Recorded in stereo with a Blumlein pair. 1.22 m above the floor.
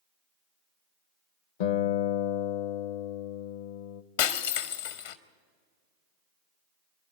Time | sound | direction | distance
1.6 | a guitar | 50° left | 0.7 m
4.2 | breaking glass | 55° left | 1.0 m